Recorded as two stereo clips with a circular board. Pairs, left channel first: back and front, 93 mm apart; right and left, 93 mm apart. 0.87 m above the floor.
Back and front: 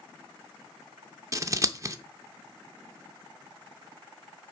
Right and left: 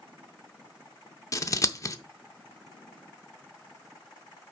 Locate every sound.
1.3 s scissors: 45° right, 0.6 m